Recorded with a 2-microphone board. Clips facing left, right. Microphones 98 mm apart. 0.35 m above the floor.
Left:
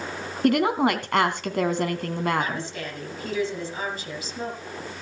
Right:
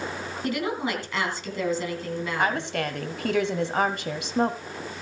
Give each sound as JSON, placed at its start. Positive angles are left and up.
{"t": 0.4, "sound": "a woman speaking", "side_deg": 60, "distance_m": 2.5}
{"t": 2.4, "sound": "a woman speaking", "side_deg": -65, "distance_m": 2.0}